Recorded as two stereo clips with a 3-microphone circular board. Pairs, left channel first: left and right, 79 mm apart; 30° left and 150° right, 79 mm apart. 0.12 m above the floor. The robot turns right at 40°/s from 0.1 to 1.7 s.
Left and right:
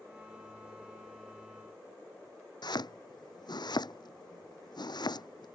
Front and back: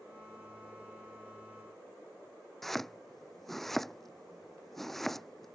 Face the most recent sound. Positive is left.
turn(degrees=115)